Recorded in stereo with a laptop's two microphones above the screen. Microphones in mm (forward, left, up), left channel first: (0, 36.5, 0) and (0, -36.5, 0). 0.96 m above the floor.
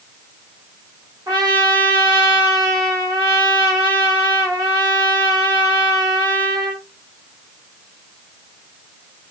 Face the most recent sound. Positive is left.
turn(degrees=-65)  # may be behind; listen again after turning